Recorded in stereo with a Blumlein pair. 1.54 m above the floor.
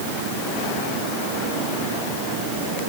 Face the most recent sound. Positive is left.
No sound to turn to.